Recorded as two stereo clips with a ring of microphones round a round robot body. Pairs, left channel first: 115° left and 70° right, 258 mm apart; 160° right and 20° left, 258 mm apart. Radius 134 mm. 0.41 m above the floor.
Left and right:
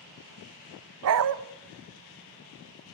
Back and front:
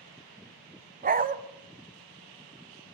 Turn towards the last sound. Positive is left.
turn(degrees=-35)